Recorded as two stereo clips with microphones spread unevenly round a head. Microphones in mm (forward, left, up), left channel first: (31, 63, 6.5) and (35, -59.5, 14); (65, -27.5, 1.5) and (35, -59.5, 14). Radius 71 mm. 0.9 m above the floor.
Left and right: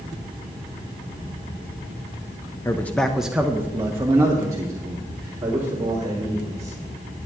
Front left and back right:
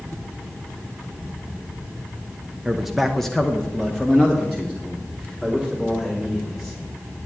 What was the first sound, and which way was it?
A man speaking, 120° left.